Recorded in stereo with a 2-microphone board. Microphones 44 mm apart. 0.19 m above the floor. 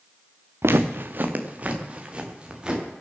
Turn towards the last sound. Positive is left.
turn(degrees=-20)  # may be behind; listen again after turning